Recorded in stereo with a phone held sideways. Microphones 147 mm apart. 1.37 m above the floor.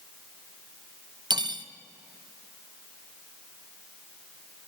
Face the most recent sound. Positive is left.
turn(degrees=-30)  # may be behind; listen again after turning